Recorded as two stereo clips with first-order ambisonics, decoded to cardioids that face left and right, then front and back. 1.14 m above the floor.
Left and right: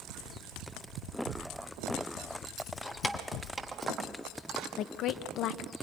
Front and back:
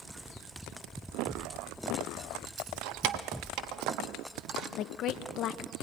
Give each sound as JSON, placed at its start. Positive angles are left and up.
{"t": 2.6, "sound": "keys jangling", "azimuth_deg": 165, "distance_m": 1.0}
{"t": 4.8, "sound": "a woman speaking", "azimuth_deg": 45, "distance_m": 0.7}